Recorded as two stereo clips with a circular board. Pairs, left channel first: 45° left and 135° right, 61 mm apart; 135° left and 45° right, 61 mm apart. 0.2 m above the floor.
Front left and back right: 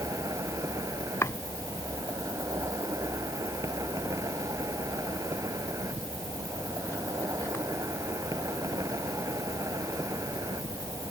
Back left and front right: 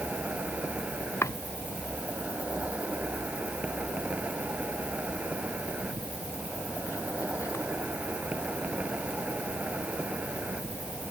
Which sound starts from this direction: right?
An insect, at 0.0 s.